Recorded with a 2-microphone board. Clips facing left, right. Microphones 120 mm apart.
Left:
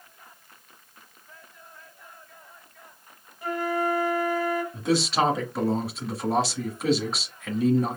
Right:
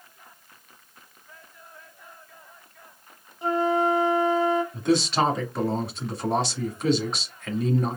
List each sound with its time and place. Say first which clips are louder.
3.4 s a flute: right 4 dB; 25° right (ahead or behind), 0.7 m
4.7 s a man speaking: right 1 dB; centre (ahead or behind), 1.2 m